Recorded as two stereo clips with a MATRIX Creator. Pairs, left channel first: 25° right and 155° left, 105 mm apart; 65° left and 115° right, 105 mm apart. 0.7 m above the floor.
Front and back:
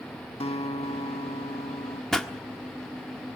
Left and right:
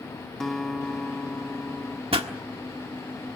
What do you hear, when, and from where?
0.4 s a guitar: 20° right, 0.9 m
2.1 s a pop: 105° right, 1.4 m